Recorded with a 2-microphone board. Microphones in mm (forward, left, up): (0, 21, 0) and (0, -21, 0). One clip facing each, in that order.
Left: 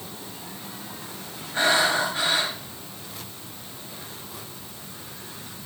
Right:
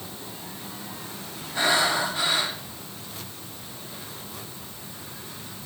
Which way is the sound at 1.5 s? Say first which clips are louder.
Left 2 dB; 45° left (ahead or behind).